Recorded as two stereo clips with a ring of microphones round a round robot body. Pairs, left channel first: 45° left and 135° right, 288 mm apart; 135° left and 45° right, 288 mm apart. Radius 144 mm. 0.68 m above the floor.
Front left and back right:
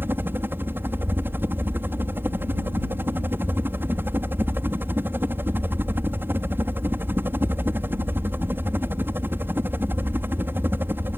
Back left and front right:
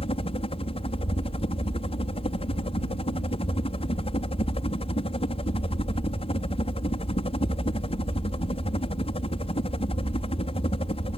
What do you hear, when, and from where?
0.0 s a helicopter: 155° left